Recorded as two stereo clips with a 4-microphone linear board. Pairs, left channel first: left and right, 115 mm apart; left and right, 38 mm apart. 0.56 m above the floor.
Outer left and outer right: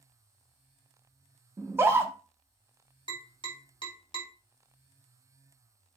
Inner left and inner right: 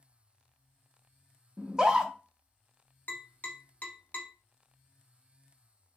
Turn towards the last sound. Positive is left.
turn(degrees=45)  # may be behind; listen again after turning